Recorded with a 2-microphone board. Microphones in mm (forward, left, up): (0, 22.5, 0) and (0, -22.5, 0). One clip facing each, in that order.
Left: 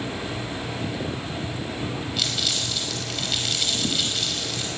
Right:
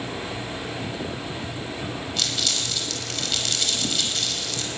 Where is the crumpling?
5° left (ahead or behind), 5 m.